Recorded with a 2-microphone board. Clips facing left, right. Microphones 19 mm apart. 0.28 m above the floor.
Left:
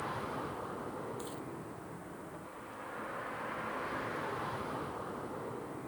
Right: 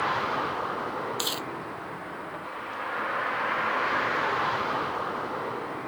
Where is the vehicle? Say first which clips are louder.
Right 12 dB; 55° right (ahead or behind).